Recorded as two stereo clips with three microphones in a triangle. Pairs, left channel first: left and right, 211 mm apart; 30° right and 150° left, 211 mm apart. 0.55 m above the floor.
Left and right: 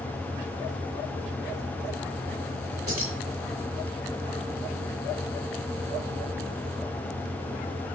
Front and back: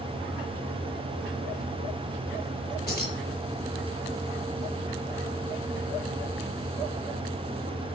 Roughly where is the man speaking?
I don't hear a man speaking.